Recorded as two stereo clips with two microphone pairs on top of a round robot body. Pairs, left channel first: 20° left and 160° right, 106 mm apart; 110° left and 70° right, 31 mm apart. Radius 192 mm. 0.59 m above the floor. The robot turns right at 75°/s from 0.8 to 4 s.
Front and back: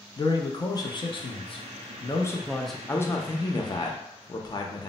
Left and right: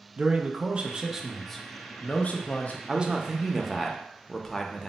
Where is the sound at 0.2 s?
30° right, 0.7 m; by 2.8 s 120° left, 0.7 m.